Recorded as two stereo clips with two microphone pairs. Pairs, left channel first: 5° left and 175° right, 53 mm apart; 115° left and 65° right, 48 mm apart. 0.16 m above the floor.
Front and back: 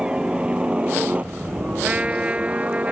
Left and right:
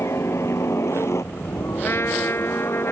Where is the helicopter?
115° left; by 2.9 s 130° left.